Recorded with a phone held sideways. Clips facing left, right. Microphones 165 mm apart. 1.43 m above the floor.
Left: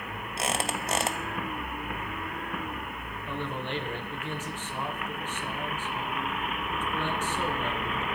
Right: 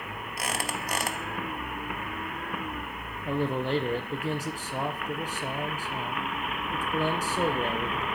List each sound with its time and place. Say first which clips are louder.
0.4 s a squeak: left 3 dB; 25° left (ahead or behind), 0.8 m
3.2 s a man speaking: right 7 dB; 40° right (ahead or behind), 1.0 m